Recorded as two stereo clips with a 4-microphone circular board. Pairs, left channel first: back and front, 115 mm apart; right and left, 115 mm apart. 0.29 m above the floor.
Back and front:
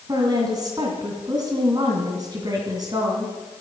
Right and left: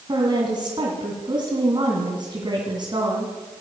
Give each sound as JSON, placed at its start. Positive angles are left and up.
{"t": 0.1, "sound": "a woman speaking", "azimuth_deg": 50, "distance_m": 2.5}